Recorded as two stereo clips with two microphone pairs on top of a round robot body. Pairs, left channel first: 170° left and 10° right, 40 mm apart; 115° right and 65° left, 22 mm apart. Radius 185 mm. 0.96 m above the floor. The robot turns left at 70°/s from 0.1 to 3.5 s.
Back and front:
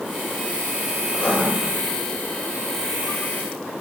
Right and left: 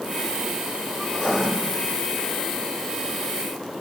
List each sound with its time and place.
1.1 s writing: 140° right, 1.3 m; by 1.4 s 165° right, 1.3 m